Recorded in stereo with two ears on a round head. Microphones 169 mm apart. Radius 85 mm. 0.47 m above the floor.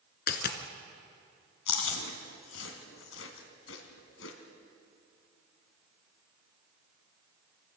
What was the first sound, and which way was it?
A dropped coin, 55° left (ahead or behind).